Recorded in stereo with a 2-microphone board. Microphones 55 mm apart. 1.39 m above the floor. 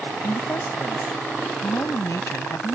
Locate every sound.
0.2 s a woman speaking: 75° left (ahead or behind); by 2.8 s 65° left (ahead or behind)